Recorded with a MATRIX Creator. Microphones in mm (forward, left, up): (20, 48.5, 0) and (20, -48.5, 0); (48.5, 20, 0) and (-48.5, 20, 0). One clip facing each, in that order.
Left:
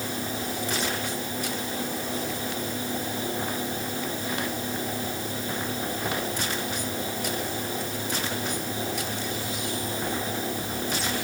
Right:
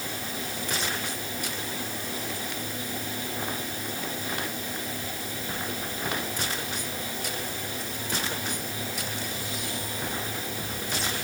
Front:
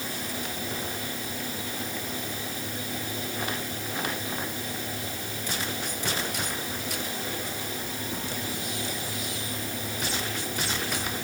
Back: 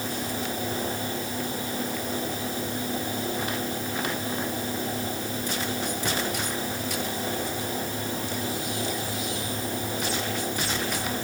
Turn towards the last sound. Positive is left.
No sound to turn to.